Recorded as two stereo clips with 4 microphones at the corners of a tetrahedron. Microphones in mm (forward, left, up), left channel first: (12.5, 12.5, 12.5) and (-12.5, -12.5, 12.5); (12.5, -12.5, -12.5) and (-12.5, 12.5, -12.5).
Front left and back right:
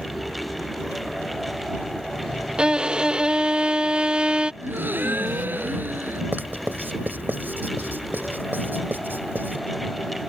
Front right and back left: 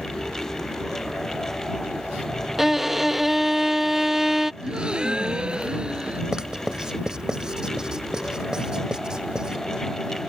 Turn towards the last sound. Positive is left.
turn(degrees=-155)